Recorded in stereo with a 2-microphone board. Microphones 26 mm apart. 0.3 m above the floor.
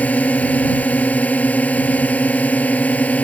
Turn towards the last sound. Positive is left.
turn(degrees=75)  # may be behind; listen again after turning